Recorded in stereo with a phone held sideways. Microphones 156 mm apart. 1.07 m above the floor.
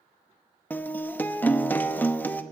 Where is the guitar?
10° left (ahead or behind), 0.6 m.